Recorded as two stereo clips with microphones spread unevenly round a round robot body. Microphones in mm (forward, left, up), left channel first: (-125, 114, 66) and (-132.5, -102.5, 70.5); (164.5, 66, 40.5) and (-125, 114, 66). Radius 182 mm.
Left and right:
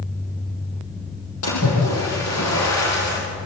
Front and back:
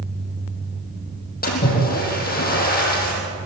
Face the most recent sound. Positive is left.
turn(degrees=50)